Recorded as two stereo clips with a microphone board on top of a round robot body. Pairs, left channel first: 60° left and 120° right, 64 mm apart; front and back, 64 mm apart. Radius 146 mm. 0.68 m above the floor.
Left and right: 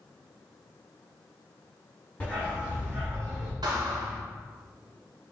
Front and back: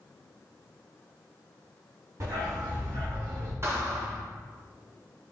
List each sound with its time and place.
2.2 s a dog barking: 130° left, 1.2 m; by 3.5 s 120° left, 3 m
3.6 s a thud: 130° right, 0.7 m